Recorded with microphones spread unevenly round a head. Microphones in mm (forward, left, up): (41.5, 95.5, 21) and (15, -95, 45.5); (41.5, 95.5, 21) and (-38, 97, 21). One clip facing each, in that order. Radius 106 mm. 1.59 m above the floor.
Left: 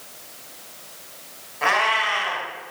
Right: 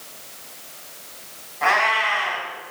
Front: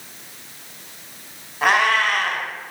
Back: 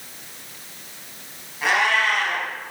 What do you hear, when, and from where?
1.6 s a cat meowing: 30° left, 3.5 m